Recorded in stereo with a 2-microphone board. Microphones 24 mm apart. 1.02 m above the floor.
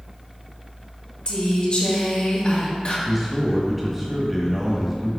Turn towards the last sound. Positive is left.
turn(degrees=0)  # may be behind; listen again after turning